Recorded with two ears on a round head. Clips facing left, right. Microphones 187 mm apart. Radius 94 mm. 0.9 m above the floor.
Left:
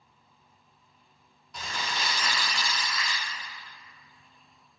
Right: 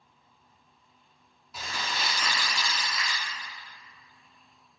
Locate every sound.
1.5 s crumpling: 5° right (ahead or behind), 1.1 m